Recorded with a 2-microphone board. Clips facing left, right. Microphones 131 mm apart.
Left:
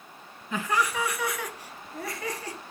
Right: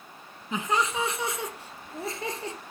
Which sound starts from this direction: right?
Laughter, at 0.5 s.